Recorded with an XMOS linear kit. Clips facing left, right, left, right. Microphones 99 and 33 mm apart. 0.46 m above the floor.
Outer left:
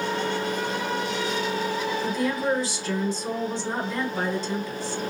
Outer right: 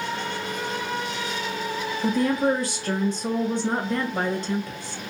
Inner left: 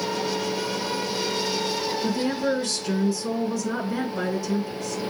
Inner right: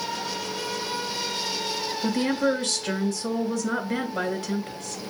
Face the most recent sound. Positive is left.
turn(degrees=-65)  # may be behind; listen again after turning